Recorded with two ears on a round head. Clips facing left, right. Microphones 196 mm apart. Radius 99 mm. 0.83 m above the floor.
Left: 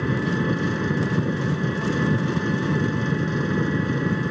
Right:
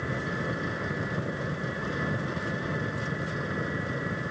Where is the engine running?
60° left (ahead or behind).